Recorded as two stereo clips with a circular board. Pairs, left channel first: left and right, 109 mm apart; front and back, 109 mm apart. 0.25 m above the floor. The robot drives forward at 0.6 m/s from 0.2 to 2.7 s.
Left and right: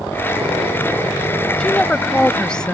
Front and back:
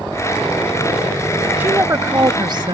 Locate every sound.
1.6 s a woman speaking: 150° left; by 2.8 s 170° left